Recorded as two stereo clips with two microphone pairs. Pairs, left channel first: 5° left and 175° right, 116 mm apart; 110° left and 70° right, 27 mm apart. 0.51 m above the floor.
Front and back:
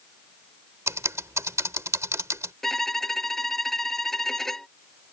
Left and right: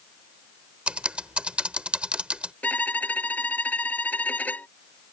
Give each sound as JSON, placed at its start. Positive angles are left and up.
{"t": 0.9, "sound": "typing on a keyboard", "azimuth_deg": -115}
{"t": 2.6, "sound": "a violin", "azimuth_deg": 90}